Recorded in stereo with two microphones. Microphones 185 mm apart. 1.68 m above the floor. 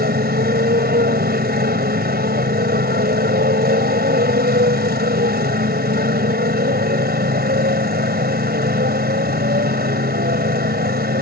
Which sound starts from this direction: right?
A motorcycle, at 0.0 s.